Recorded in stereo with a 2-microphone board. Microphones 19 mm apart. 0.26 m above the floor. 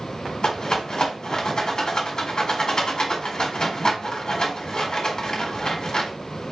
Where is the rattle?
45° left (ahead or behind), 1.8 m.